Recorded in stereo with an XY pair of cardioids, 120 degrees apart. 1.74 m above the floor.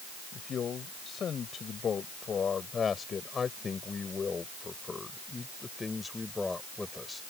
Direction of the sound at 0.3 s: 45° left.